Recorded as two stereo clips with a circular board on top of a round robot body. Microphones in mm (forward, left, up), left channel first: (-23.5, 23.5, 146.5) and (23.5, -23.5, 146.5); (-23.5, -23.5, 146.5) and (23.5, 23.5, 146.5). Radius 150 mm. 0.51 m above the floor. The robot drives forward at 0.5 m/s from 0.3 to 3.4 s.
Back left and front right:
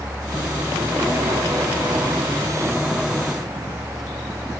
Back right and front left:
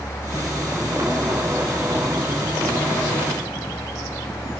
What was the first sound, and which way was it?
Only background noise.